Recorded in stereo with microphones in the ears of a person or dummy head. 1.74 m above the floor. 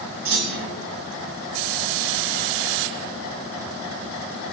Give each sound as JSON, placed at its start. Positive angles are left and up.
{"t": 0.2, "sound": "a clunk", "side_deg": -60, "distance_m": 3.0}